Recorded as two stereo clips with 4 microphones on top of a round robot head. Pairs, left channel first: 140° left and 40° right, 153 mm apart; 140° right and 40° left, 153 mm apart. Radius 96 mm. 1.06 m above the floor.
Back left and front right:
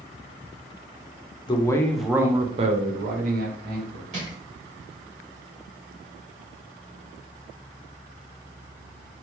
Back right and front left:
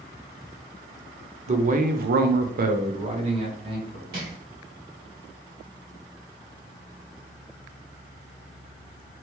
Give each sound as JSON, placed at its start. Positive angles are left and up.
{"t": 1.5, "sound": "a man speaking", "azimuth_deg": 80, "distance_m": 0.6}
{"t": 4.1, "sound": "crushing", "azimuth_deg": 10, "distance_m": 1.6}